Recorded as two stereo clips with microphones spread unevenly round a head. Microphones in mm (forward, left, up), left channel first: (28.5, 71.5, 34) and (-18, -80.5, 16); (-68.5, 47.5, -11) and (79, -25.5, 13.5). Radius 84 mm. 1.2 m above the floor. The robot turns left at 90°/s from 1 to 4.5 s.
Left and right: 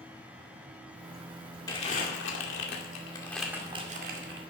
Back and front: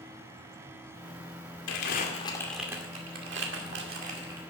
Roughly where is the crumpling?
Behind left.